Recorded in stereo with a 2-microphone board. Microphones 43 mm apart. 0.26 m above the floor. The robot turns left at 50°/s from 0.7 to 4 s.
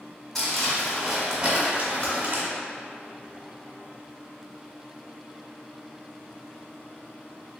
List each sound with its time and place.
0.3 s crumpling: 10° left, 1.3 m; by 2.4 s 75° right, 1.3 m
2.0 s typing on a keyboard: 40° left (ahead or behind), 1.6 m; by 2.1 s 45° left (ahead or behind), 1.6 m